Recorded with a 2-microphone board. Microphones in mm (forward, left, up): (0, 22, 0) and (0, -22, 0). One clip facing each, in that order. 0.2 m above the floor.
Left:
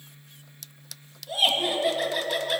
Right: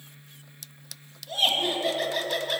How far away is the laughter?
About 1.6 m.